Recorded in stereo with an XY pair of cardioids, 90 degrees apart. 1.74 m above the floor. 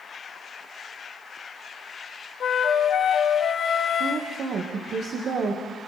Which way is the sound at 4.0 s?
60° right.